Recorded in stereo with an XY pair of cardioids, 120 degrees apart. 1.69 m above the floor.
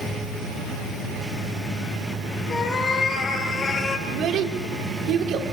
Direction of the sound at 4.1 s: 65° right.